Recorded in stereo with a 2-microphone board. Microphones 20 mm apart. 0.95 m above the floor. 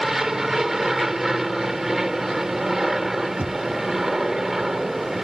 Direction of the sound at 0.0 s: 15° right (ahead or behind).